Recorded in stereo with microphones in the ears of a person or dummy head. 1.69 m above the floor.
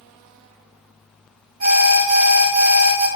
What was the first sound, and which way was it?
An alarm, 35° right (ahead or behind).